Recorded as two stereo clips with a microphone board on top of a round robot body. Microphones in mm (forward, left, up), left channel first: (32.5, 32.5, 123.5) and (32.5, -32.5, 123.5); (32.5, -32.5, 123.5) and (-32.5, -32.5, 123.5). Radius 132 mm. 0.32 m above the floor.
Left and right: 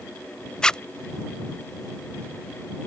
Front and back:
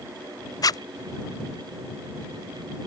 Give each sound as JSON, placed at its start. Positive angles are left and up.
{"t": 0.6, "sound": "a zipper", "azimuth_deg": 15}